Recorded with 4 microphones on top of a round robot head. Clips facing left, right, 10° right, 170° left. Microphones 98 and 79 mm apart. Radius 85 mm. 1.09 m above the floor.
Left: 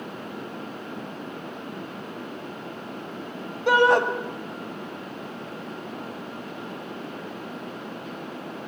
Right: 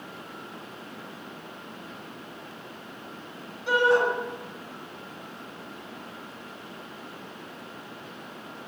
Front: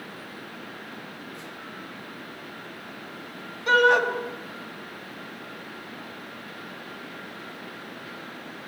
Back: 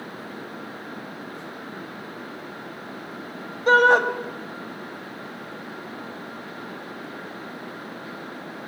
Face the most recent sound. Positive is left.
turn(degrees=115)